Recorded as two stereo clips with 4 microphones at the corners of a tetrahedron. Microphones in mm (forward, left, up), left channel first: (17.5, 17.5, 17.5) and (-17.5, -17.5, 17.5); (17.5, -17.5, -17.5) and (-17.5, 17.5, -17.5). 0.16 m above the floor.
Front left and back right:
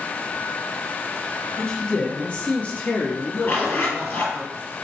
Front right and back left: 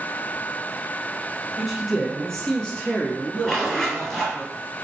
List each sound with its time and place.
1.6 s a man speaking: 60° left, 1.1 m; by 4.4 s 5° left, 2.0 m
3.4 s a zipper: 35° left, 1.7 m